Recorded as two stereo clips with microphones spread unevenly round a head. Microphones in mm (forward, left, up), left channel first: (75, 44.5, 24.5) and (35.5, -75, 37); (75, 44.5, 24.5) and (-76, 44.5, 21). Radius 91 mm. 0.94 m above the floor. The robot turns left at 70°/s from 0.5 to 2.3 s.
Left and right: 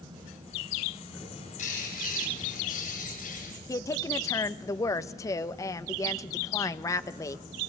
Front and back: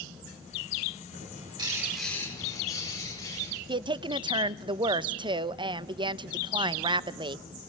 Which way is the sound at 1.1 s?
150° left.